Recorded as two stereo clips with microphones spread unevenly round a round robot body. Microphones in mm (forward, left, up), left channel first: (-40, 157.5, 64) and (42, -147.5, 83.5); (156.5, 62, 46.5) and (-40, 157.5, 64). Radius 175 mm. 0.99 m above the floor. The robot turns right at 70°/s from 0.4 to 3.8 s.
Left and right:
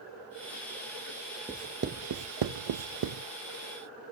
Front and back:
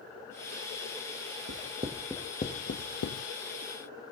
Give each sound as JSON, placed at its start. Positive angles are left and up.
{"t": 1.5, "sound": "writing", "azimuth_deg": -160, "distance_m": 0.7}